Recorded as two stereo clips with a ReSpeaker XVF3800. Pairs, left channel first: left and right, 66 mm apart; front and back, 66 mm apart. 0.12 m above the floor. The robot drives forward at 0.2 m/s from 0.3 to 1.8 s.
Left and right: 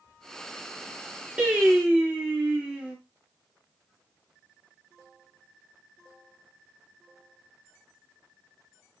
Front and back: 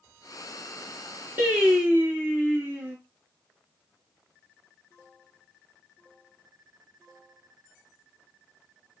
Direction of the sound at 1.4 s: 140° right.